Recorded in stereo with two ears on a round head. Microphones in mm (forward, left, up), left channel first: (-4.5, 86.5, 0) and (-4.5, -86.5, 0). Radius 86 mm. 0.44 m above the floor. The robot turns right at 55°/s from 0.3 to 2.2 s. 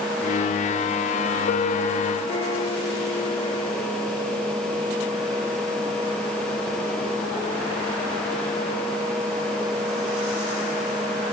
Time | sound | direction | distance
1.5 | a piano | 100° left | 1.6 m